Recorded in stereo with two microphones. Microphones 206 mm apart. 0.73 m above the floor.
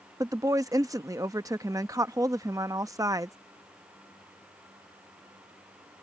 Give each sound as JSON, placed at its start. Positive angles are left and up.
{"t": 0.2, "sound": "a woman speaking", "side_deg": -15}